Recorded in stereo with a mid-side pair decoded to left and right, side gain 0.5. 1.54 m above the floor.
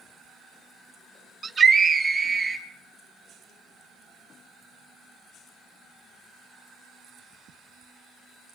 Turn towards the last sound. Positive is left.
turn(degrees=-20)